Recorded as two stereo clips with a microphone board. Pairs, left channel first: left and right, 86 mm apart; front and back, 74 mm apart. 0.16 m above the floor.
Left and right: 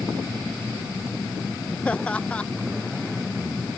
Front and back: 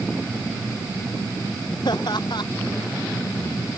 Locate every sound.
1.9 s laughter: 15° left